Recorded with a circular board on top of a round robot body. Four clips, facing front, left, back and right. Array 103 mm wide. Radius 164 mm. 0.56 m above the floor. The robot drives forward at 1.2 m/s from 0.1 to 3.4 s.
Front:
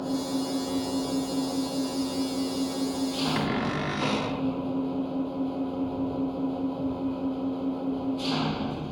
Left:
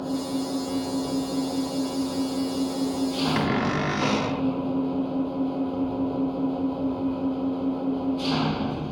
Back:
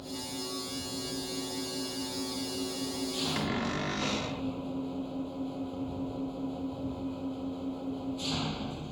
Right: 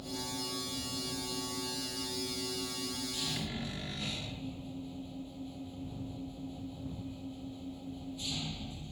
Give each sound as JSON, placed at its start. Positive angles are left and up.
{"t": 0.0, "sound": "an engine running", "azimuth_deg": 55}
{"t": 3.4, "sound": "a cupboard door", "azimuth_deg": 75}